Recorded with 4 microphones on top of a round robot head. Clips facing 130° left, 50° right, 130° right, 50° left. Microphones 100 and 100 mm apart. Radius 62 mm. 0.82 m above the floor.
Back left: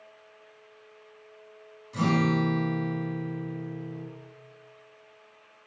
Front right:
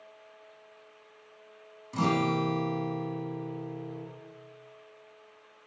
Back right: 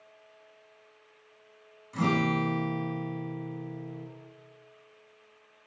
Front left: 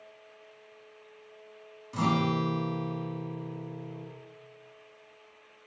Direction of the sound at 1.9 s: 10° right.